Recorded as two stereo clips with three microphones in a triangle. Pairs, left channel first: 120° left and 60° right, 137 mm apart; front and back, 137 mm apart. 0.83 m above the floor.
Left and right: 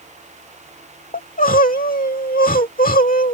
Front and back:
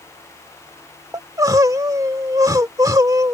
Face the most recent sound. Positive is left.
turn(degrees=115)